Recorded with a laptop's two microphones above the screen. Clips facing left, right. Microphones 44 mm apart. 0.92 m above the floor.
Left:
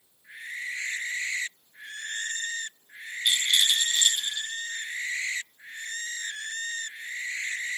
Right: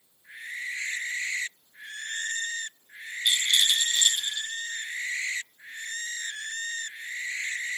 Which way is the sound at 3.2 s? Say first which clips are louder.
Even; 15° left (ahead or behind).